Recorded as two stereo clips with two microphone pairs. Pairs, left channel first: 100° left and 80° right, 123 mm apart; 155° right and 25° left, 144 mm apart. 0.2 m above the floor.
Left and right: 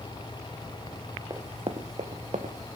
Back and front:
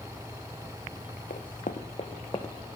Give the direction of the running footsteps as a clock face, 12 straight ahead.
5 o'clock.